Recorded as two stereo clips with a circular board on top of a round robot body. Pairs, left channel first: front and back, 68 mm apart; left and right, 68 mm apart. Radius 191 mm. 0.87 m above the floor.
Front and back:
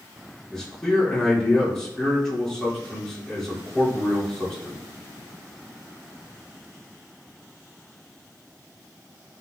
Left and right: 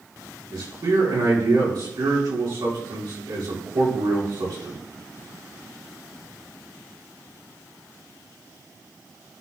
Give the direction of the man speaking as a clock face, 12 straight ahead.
3 o'clock.